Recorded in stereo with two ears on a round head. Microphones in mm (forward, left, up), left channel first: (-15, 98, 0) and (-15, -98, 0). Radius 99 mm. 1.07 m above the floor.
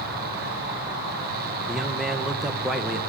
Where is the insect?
50° right (ahead or behind), 8.5 m.